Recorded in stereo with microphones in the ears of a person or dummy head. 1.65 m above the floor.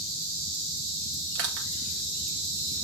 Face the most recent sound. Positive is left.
turn(degrees=-50)  # may be behind; listen again after turning